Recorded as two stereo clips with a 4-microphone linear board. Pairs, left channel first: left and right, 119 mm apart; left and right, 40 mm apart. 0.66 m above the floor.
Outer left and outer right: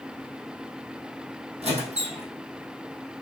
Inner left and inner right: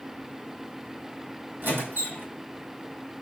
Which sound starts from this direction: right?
A squeak, at 1.6 s.